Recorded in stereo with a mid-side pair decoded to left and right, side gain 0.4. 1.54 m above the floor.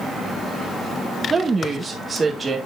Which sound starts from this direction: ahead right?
A woman speaking, at 1.3 s.